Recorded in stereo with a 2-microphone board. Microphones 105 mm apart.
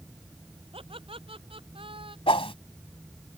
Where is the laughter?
60° right (ahead or behind); by 2.2 s 55° right (ahead or behind).